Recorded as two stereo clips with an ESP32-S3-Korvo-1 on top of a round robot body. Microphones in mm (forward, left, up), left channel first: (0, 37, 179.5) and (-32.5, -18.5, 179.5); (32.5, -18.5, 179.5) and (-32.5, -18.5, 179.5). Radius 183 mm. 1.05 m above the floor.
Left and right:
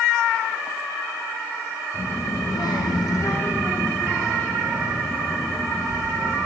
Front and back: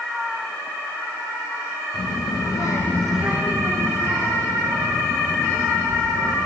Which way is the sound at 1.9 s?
5° left.